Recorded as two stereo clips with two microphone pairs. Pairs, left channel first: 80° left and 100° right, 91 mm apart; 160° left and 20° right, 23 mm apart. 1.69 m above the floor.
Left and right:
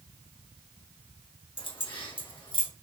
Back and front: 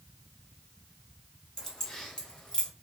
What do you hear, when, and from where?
1.6 s keys jangling: 90° left, 1.4 m; by 2.7 s 105° left, 2 m